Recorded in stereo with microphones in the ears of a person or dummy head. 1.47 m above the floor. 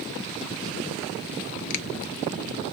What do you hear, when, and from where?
1.7 s a finger snap: 50° left (ahead or behind), 0.6 m